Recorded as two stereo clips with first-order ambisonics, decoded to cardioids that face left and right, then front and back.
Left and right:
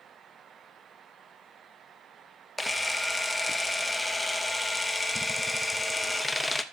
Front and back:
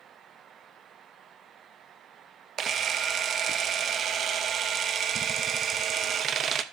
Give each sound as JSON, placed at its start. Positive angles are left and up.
{"t": 2.6, "sound": "a camera shutter", "azimuth_deg": 175, "distance_m": 0.6}